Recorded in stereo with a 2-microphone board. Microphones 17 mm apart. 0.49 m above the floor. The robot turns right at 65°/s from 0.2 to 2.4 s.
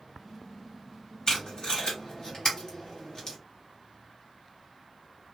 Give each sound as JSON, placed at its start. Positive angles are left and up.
{"t": 1.3, "sound": "tape being pulled", "side_deg": 55, "distance_m": 1.7}